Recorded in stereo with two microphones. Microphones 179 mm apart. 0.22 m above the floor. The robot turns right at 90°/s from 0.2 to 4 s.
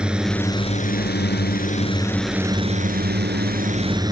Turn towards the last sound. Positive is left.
turn(degrees=-25)